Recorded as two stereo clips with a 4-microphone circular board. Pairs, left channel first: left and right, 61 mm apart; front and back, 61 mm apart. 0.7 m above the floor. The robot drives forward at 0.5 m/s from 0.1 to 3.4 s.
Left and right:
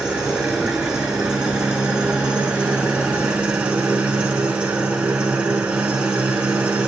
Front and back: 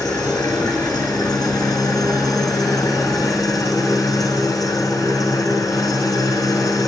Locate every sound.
0.0 s an engine running: 10° right, 5 m; by 6.9 s 20° right, 3.5 m